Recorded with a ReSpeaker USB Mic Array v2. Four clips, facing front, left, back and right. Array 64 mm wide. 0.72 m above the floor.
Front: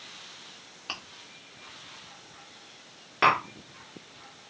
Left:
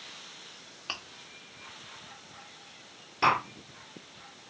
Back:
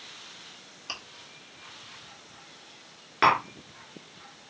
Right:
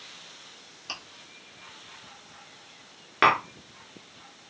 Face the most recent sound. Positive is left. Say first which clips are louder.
# right 4 dB, back 1 dB
turn(degrees=-95)